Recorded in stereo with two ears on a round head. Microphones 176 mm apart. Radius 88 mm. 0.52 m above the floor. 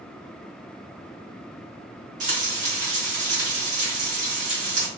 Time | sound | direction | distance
2.2 | frying | 40° right (ahead or behind) | 2.0 m